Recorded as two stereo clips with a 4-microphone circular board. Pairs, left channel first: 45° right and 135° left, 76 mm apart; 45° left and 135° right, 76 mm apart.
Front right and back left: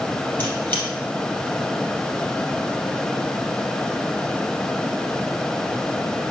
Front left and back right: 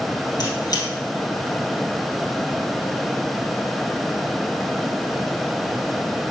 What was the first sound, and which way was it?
A squeak, 15° left.